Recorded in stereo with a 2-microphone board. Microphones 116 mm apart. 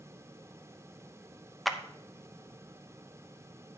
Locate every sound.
1.6 s a clap: centre (ahead or behind), 0.7 m